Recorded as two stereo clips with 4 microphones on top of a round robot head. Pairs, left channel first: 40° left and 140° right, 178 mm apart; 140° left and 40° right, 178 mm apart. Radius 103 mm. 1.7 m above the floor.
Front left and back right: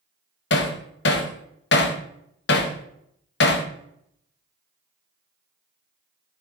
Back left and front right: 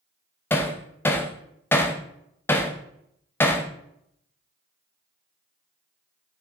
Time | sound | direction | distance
0.5 | hammering | 65° left | 0.9 m